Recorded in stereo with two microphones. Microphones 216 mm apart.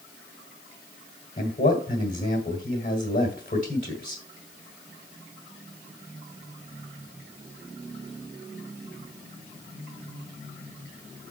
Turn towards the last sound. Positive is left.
turn(degrees=40)  # may be behind; listen again after turning